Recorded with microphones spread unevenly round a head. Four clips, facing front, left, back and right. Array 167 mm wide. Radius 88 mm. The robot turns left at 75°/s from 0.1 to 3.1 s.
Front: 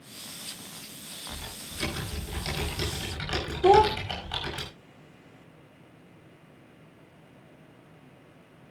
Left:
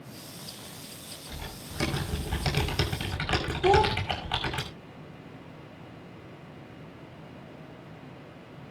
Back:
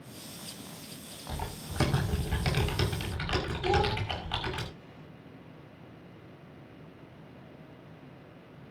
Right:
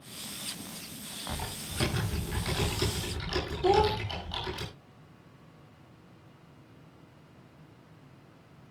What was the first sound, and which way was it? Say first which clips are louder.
Typing on a keyboard: right 4 dB, back 5 dB; 145° right.